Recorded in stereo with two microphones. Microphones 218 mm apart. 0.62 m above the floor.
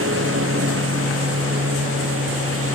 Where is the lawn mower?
80° right; by 2.8 s 85° right.